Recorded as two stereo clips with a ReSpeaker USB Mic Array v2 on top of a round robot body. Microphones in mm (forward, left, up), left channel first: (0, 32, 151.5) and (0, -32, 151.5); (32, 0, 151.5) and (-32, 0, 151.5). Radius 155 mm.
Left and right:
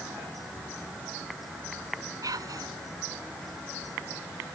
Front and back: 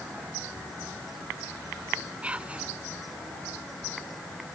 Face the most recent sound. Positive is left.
turn(degrees=-110)